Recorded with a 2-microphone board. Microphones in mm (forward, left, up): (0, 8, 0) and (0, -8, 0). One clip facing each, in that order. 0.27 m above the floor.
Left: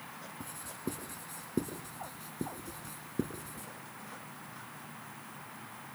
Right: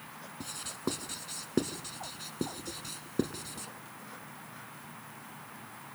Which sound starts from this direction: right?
Writing, at 0.4 s.